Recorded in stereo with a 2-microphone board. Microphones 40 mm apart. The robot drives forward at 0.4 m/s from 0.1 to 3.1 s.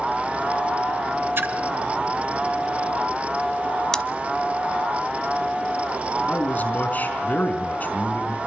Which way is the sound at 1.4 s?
65° right (ahead or behind).